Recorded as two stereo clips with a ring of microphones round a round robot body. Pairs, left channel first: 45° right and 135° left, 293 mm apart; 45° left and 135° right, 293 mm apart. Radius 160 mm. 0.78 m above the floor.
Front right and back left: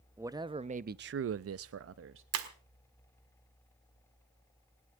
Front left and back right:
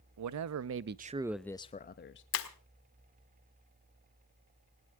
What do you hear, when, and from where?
0.2 s a man speaking: 145° right, 0.9 m; by 2.2 s 90° left, 0.9 m
2.3 s breaking glass: 90° left, 1.5 m